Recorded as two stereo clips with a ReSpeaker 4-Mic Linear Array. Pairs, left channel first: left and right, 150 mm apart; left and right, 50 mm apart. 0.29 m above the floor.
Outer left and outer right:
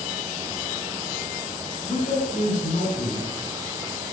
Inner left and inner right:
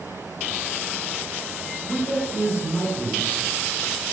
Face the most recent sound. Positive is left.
turn(degrees=55)  # may be behind; listen again after turning